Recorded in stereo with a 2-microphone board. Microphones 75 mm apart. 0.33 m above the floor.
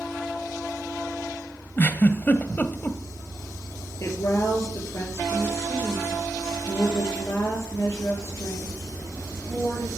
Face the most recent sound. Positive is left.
turn(degrees=40)  # may be behind; listen again after turning